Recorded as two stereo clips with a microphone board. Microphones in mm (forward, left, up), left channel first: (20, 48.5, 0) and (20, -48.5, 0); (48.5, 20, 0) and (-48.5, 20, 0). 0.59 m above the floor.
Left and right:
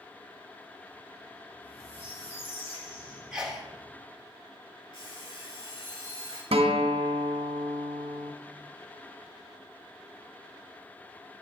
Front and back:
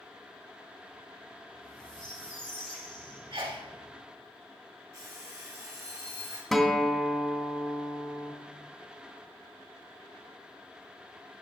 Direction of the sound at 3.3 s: 170° right.